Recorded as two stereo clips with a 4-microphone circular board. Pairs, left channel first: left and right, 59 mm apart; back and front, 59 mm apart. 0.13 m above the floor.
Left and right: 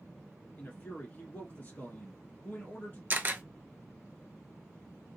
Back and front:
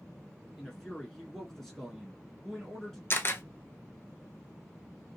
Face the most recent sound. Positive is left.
turn(degrees=-140)